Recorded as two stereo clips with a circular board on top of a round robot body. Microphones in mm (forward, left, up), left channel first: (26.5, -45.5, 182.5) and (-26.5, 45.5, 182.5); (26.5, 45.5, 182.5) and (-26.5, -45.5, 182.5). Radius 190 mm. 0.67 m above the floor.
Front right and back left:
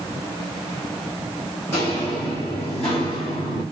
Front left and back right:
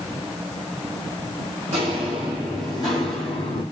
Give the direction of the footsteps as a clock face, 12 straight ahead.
4 o'clock.